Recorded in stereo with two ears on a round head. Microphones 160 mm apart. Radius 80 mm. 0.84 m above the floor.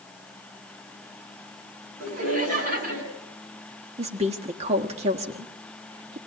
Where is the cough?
I don't hear a cough.